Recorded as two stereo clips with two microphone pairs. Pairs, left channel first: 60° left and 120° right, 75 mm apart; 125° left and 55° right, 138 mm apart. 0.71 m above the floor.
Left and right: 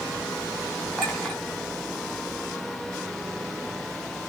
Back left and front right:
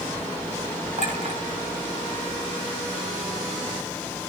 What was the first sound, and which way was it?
A clink, 25° right.